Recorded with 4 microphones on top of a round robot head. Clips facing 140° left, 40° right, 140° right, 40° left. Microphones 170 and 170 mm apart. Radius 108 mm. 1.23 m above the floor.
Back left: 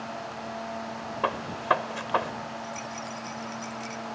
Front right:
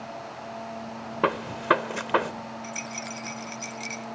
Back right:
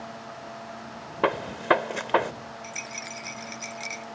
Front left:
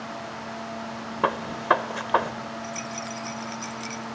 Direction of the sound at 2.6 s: 60° right.